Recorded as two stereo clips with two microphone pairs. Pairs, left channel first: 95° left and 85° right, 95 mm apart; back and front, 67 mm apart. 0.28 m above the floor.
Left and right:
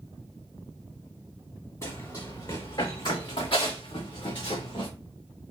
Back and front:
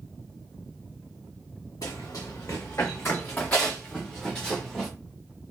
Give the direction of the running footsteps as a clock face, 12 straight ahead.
7 o'clock.